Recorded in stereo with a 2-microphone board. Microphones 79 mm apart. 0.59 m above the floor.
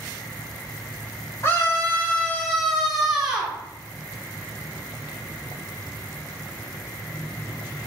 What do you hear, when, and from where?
1.4 s a scream: 30° left (ahead or behind), 1.3 m; by 3.6 s 15° right (ahead or behind), 1.1 m